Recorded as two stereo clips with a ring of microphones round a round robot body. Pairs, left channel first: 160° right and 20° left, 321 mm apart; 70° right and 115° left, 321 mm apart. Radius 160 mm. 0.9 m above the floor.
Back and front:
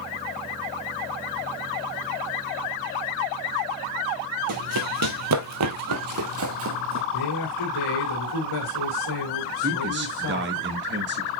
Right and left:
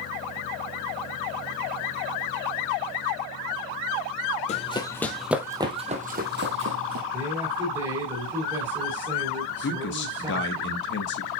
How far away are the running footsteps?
About 1.3 m.